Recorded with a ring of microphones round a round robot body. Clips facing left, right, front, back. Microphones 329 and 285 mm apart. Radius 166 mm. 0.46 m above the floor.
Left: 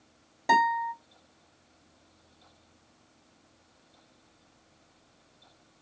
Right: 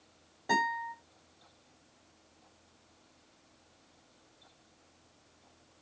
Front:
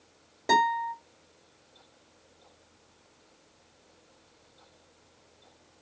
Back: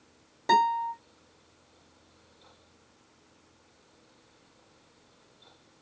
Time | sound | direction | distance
0.5 | a guitar | 95° left | 2.5 m